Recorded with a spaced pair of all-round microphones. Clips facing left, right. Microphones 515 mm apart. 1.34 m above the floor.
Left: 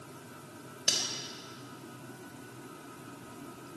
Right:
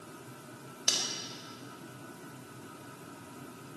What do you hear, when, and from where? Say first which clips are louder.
0.9 s cutlery clinking: even; 45° left (ahead or behind), 4 m